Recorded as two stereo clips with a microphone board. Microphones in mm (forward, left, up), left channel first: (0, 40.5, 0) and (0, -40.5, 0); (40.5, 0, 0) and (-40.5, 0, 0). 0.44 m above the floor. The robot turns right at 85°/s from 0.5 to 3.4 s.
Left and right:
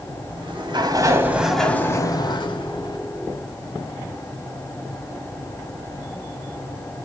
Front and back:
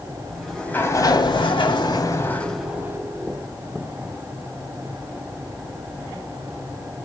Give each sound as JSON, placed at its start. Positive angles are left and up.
{"t": 0.3, "sound": "a sliding door", "azimuth_deg": -90, "distance_m": 1.3}